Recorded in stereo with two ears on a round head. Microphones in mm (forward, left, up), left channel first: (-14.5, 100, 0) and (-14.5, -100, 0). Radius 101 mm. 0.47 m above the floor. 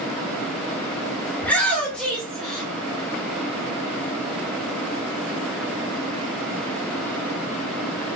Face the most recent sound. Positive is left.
turn(degrees=0)  # may be behind; listen again after turning